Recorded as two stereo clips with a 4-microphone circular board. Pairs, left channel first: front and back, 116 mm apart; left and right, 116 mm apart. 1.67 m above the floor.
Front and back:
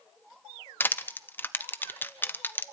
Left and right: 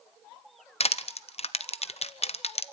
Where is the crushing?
70° left, 0.7 m.